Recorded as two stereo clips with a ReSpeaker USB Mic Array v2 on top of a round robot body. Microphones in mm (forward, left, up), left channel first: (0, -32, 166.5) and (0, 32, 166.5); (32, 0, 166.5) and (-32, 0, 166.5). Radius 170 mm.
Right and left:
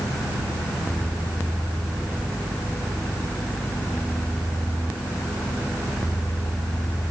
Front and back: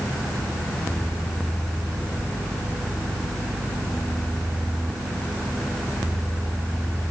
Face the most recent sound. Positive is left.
No sound to turn to.